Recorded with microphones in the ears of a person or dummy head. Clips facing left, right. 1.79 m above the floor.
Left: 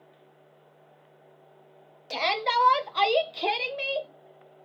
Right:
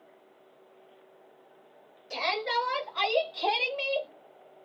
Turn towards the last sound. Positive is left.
turn(degrees=5)  # may be behind; listen again after turning